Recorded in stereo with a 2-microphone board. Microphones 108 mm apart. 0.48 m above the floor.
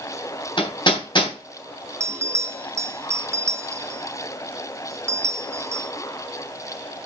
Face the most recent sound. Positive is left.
turn(degrees=-30)  # may be behind; listen again after turning